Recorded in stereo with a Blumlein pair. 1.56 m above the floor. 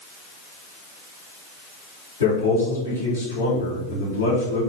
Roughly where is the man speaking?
Left.